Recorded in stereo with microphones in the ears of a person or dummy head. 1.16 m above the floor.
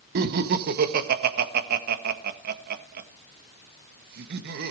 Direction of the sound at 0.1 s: 55° right (ahead or behind).